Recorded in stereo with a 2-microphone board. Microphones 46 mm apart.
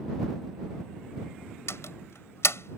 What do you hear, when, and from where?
1.7 s a door slam: 75° left (ahead or behind)